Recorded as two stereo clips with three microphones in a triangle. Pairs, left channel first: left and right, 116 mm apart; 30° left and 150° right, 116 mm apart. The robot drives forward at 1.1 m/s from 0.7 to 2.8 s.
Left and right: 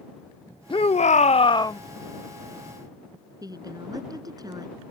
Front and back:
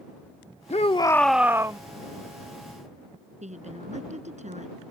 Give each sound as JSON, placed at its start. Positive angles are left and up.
{"t": 0.7, "sound": "a shout", "azimuth_deg": 50}
{"t": 3.4, "sound": "a woman speaking", "azimuth_deg": -145}